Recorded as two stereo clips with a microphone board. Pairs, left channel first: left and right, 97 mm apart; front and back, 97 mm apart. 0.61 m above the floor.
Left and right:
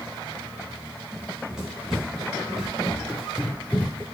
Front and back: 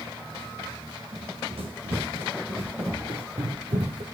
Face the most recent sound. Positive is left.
turn(degrees=170)